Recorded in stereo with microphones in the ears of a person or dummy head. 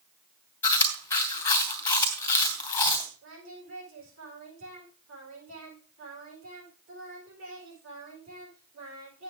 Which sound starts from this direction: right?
Singing, at 3.2 s.